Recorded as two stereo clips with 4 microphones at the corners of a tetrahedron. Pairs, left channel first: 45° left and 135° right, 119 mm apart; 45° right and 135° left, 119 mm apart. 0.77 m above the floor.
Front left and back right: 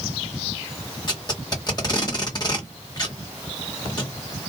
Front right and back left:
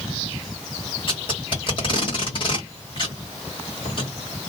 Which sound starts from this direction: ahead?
Tape being pulled, at 1.1 s.